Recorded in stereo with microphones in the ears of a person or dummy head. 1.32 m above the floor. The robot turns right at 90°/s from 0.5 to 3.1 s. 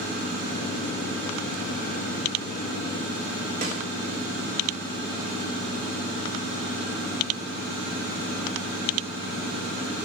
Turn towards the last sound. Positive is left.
turn(degrees=-45)  # may be behind; listen again after turning